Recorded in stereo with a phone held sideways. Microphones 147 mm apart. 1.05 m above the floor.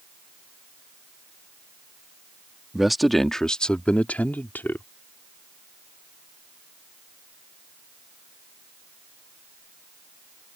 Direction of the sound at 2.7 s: Centre (ahead or behind).